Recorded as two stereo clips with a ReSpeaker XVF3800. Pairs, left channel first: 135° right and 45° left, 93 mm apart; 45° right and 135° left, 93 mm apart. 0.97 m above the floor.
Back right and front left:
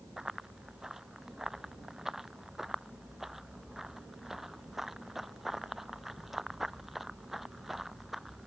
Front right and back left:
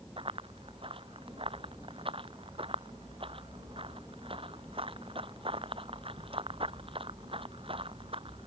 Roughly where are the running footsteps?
Behind left.